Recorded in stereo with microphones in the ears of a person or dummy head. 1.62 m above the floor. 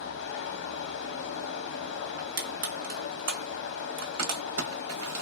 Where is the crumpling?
85° right, 0.8 m.